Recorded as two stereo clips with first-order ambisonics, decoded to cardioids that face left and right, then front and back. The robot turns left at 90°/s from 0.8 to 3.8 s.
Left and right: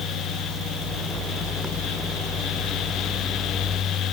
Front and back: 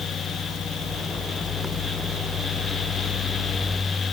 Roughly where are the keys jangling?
No keys jangling in this recording.